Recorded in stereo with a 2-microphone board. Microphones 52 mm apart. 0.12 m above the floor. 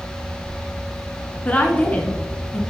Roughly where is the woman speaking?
Left.